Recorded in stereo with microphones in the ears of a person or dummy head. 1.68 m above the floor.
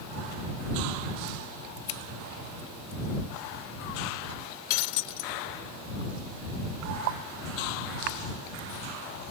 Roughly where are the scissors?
Left.